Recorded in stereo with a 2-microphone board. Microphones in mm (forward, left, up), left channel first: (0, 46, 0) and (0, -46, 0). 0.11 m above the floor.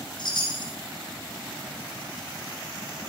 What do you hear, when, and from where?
0.2 s a chime: 55° left (ahead or behind), 2.5 m